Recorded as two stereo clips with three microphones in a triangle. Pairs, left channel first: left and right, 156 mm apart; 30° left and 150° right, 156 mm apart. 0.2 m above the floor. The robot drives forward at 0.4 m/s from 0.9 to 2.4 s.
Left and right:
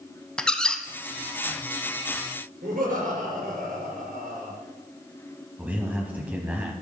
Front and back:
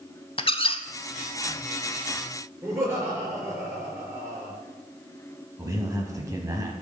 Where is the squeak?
10° left, 0.6 m.